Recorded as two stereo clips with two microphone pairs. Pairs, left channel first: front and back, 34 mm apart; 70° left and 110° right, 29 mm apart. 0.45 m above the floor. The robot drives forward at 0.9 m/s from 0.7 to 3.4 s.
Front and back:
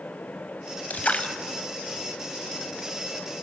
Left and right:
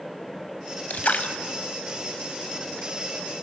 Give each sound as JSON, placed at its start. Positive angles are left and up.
{"t": 0.9, "sound": "a splash", "azimuth_deg": 35, "distance_m": 1.1}